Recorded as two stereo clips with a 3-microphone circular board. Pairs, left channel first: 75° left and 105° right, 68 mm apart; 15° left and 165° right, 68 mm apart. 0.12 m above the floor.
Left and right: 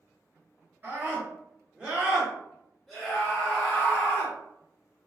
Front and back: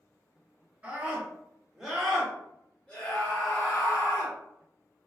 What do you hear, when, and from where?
0.8 s a scream: 120° right, 1.9 m; by 4.3 s 20° left, 2 m